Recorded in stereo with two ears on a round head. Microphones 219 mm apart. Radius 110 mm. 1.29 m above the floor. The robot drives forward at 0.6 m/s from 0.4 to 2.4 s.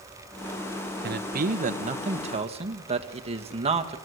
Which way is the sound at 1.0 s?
40° right (ahead or behind).